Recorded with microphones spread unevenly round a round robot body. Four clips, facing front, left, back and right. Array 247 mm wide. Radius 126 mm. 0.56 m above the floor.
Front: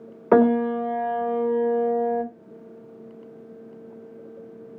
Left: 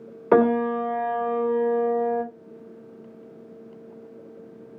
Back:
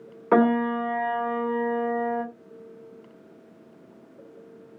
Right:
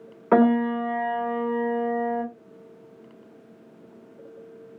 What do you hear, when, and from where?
0.3 s a piano: 10° left, 1.2 m